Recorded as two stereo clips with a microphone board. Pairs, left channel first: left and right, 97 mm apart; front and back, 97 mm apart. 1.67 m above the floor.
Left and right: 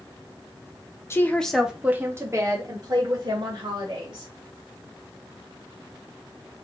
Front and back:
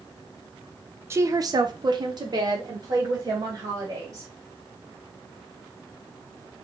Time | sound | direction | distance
1.1 | a woman speaking | 135° left | 0.6 m